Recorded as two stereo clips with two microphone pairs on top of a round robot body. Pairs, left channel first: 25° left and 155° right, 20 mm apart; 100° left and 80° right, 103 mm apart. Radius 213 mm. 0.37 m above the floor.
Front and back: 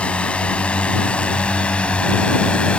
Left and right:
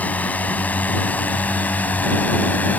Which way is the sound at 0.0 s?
25° left.